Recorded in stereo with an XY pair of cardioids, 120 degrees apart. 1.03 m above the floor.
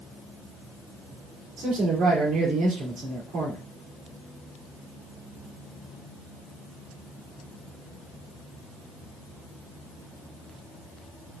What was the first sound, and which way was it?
A man speaking, 60° right.